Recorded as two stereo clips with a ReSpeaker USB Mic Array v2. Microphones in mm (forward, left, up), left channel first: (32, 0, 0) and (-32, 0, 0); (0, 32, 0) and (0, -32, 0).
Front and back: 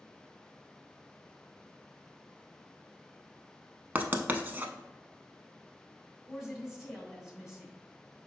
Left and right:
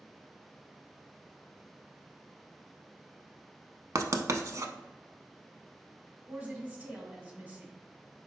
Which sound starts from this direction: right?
A woman speaking, at 6.3 s.